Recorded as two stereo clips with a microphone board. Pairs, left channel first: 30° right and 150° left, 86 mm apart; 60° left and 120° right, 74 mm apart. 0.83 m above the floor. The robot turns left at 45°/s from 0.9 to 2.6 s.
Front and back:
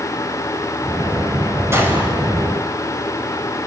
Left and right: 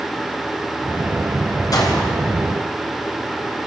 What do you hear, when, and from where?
1.7 s a gunshot: 95° left, 4.5 m; by 2.1 s 75° left, 4.5 m